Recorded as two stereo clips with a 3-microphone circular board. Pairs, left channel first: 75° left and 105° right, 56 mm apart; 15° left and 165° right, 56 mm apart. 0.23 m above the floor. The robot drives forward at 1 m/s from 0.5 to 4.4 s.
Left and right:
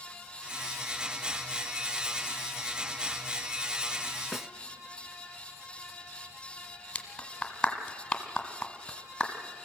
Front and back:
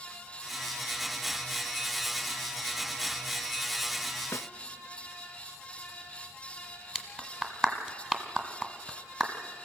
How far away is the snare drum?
About 0.6 m.